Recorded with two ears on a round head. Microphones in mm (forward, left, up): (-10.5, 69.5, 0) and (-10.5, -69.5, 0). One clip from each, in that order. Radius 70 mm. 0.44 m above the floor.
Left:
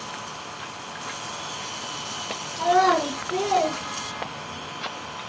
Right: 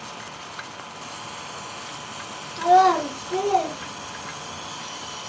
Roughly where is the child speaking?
Right.